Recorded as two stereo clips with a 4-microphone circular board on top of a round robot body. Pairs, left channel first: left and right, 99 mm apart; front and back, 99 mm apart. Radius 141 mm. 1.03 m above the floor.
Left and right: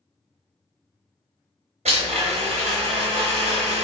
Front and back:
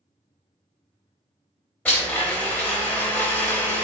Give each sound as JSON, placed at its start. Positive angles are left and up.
{"t": 1.9, "sound": "a blender", "azimuth_deg": -80, "distance_m": 0.6}